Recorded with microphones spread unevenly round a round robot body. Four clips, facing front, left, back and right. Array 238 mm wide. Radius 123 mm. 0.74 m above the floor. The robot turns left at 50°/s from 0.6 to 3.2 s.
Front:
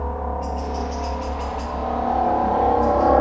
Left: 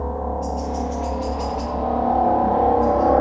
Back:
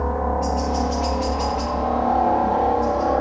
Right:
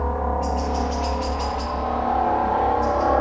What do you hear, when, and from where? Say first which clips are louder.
0.0 s a helicopter: right 1 dB, back 4 dB; 175° left; by 3.2 s 60° left